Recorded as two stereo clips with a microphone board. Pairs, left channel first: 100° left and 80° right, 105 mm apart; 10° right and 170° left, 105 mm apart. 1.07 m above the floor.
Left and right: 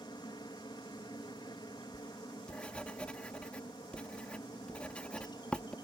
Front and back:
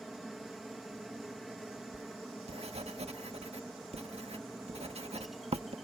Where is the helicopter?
80° left.